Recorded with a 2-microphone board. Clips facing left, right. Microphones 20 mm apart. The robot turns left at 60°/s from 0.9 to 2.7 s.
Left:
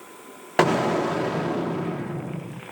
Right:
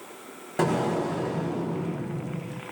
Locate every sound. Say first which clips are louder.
0.6 s an explosion: left 5 dB; 125° left, 0.7 m; by 2.6 s 20° left, 0.7 m